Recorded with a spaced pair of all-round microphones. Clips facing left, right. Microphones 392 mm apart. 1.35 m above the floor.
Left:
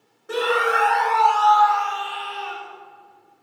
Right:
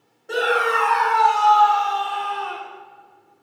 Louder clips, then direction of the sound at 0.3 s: Even; 15° left (ahead or behind).